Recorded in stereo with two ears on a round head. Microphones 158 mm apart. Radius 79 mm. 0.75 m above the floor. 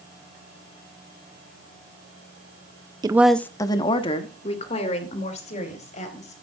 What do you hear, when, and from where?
3.0 s a woman speaking: 20° right (ahead or behind), 0.6 m; by 6.3 s 40° left (ahead or behind), 4 m